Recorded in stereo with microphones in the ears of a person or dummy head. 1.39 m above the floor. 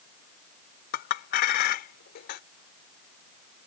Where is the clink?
55° left (ahead or behind).